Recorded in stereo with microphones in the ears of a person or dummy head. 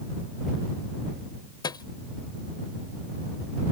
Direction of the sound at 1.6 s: 25° left (ahead or behind).